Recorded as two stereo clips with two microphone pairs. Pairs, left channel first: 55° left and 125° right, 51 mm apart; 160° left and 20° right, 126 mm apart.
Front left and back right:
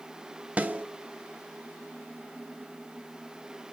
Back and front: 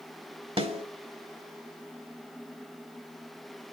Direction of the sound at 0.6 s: 60° right.